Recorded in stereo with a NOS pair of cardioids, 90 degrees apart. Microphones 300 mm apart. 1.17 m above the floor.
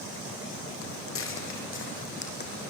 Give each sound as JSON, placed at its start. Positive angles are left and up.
{"t": 0.8, "sound": "footsteps", "azimuth_deg": 55, "distance_m": 4.0}